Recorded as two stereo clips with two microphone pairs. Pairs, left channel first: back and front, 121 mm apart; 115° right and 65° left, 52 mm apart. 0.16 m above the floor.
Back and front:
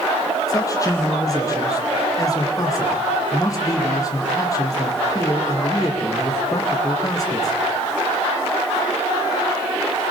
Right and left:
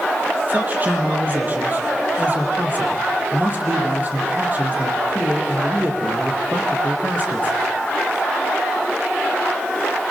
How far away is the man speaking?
About 5 m.